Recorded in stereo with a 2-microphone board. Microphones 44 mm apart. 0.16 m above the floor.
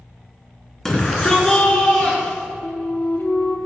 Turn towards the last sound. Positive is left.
turn(degrees=50)  # may be behind; listen again after turning